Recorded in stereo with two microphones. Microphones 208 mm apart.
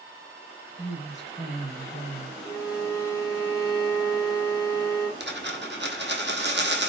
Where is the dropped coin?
60° right (ahead or behind), 1.5 m.